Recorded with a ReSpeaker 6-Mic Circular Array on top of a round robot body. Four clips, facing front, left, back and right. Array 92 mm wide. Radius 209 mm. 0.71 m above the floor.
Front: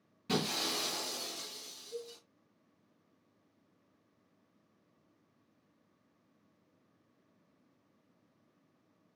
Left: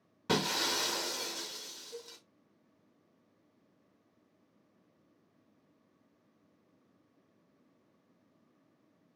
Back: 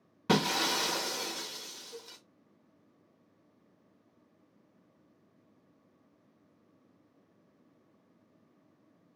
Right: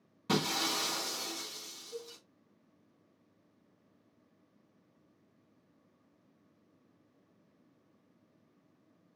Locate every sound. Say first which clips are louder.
0.3 s breaking glass: even, back 7 dB; 165° left, 0.6 m
1.9 s a cowbell: right 3 dB, front 6 dB; 5° left, 3.5 m